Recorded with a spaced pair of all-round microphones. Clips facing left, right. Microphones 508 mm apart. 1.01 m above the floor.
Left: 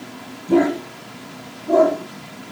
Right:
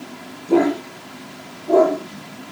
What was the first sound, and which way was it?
A dog barking, 35° left (ahead or behind).